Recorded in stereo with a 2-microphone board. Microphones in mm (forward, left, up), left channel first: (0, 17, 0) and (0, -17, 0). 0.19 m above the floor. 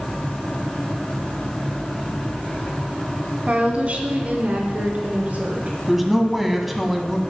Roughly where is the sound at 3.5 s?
Right.